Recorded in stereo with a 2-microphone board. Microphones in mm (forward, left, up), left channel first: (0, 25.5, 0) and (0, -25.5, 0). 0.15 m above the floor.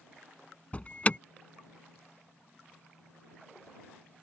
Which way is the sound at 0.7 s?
30° left (ahead or behind).